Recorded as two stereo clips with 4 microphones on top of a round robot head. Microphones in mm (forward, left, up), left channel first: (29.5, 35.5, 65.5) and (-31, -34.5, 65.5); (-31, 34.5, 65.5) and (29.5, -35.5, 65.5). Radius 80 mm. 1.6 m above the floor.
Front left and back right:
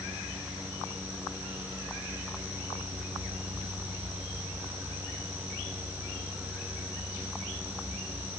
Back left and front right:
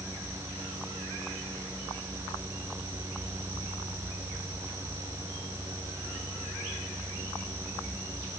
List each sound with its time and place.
Only background noise.